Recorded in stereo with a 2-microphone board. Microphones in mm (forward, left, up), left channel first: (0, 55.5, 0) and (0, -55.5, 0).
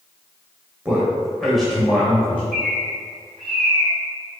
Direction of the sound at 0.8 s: 10° right (ahead or behind).